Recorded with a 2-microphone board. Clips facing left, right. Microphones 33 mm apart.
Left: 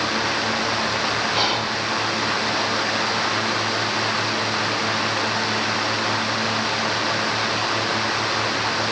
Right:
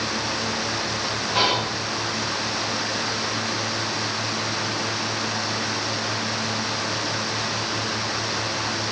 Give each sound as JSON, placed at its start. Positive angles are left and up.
{"t": 1.4, "sound": "whispering", "side_deg": -10, "distance_m": 1.8}